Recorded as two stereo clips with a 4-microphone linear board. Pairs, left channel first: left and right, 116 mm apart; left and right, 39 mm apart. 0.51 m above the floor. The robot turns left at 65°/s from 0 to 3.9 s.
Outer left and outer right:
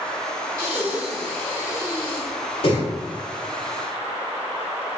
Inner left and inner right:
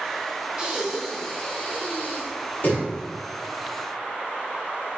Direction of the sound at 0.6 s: 25° right (ahead or behind).